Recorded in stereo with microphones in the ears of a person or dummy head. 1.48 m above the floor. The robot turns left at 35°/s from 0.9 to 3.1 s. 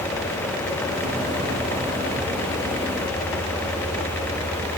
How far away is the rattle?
No rattle in this recording.